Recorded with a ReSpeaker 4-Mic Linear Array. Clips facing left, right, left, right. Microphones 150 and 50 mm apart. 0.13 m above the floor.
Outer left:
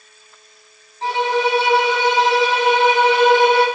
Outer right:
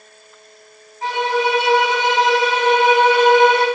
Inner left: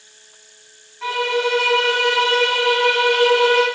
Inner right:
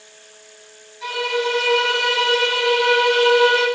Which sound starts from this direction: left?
A violin, at 1.0 s.